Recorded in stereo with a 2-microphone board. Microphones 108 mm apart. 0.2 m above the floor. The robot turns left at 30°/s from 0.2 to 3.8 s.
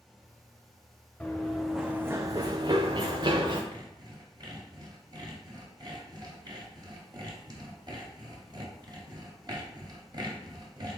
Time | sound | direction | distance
1.2 | running footsteps | 5° left (ahead or behind) | 0.9 m
3.7 | sawing | 40° right (ahead or behind) | 1.4 m